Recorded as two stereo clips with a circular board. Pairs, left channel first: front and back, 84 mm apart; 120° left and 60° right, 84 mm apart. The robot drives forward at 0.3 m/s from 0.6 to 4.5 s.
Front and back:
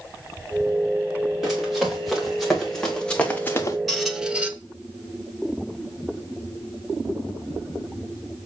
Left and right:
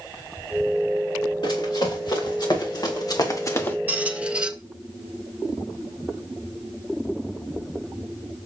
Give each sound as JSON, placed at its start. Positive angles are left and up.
{"t": 1.4, "sound": "running footsteps", "azimuth_deg": 90, "distance_m": 3.5}
{"t": 3.9, "sound": "a squeak", "azimuth_deg": -85, "distance_m": 0.6}